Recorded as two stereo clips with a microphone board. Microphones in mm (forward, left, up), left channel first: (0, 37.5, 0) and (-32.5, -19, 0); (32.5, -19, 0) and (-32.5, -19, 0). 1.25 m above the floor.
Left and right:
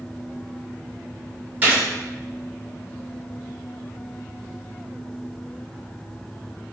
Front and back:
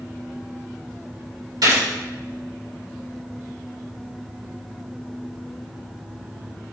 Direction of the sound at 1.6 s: 175° left.